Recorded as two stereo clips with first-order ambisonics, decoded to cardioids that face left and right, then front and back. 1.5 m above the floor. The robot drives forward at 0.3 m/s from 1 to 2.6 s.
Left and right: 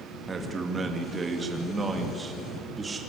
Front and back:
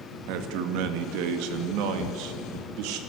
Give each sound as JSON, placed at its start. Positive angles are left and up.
{"t": 0.3, "sound": "a man speaking", "azimuth_deg": -165, "distance_m": 2.5}